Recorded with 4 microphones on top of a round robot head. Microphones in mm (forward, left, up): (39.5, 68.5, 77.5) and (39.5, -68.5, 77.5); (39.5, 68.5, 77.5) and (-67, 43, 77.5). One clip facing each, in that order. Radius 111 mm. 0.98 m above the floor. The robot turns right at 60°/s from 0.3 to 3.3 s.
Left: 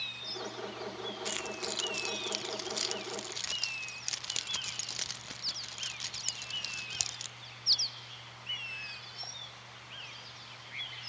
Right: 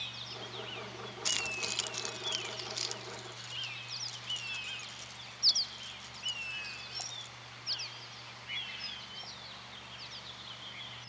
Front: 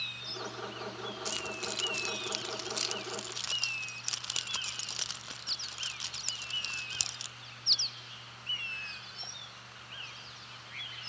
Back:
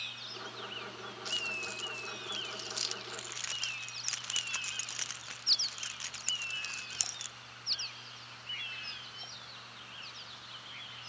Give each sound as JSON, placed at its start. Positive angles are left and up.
{"t": 1.2, "sound": "keys jangling", "azimuth_deg": -40, "distance_m": 0.8}